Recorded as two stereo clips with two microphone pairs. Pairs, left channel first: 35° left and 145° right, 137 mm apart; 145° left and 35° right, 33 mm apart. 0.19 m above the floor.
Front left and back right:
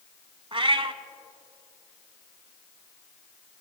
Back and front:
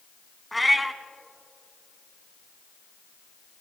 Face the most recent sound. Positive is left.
turn(degrees=-120)